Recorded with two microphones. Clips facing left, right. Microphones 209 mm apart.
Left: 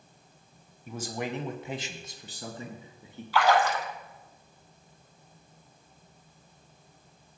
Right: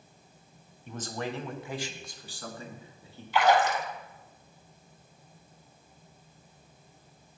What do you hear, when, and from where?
0.9 s a man speaking: 5° left (ahead or behind), 1.1 m; by 3.2 s 20° left (ahead or behind), 3 m
3.3 s a splash: 20° right (ahead or behind), 1.3 m